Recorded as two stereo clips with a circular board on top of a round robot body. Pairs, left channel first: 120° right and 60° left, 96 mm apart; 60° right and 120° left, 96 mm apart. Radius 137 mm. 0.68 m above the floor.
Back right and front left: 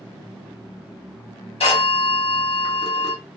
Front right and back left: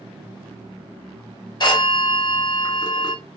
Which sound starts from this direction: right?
A phone ringing, at 1.6 s.